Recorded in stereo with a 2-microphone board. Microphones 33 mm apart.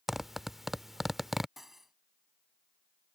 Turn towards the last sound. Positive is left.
turn(degrees=-5)  # may be behind; listen again after turning